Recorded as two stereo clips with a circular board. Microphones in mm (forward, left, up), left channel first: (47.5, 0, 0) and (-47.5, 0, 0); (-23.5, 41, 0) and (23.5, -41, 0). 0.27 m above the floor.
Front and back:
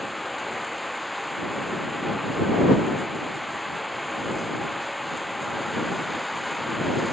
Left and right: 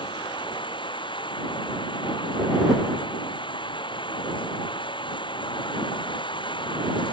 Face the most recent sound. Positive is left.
turn(degrees=90)